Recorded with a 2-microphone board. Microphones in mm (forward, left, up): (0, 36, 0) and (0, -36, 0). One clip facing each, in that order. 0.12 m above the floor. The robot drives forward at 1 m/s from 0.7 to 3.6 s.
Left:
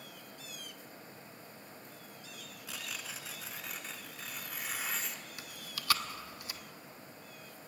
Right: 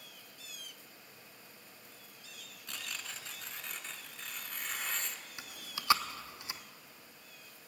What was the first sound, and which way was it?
Tearing paper, 5° left (ahead or behind).